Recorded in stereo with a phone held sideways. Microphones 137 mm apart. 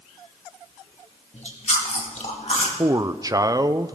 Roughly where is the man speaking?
Right.